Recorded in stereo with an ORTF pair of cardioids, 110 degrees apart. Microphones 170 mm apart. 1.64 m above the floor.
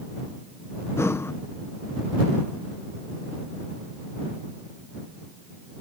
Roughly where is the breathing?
Ahead.